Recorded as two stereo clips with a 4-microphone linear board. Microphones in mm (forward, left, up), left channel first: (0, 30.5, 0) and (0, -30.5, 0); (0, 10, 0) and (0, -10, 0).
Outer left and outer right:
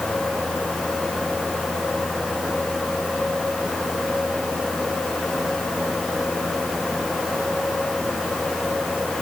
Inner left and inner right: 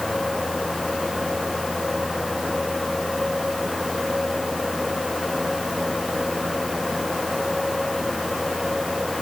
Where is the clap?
No clap in this recording.